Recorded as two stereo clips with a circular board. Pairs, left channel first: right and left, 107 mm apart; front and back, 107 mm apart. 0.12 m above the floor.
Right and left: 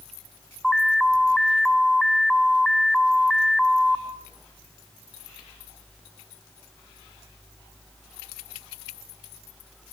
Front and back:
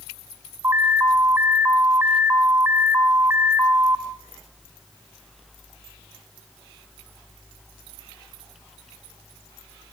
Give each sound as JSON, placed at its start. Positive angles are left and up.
{"t": 0.6, "sound": "an alarm", "azimuth_deg": -170, "distance_m": 1.4}